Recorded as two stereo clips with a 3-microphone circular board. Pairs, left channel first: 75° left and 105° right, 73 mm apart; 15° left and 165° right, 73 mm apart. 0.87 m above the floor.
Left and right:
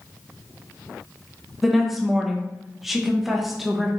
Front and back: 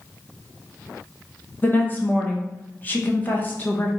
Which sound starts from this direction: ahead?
A woman speaking, at 1.6 s.